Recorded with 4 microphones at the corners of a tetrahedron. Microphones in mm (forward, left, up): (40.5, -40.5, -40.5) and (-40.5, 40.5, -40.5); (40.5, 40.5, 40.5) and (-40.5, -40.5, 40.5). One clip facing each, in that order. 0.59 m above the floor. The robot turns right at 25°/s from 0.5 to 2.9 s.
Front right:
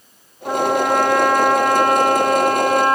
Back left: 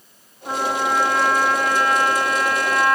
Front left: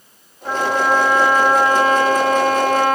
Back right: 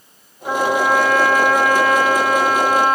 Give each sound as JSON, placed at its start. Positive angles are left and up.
{"t": 0.5, "sound": "a trumpet", "azimuth_deg": -50, "distance_m": 3.5}